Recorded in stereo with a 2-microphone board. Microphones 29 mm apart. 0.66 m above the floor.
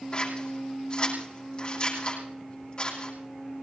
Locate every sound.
0.1 s scissors: 30° left (ahead or behind), 8 m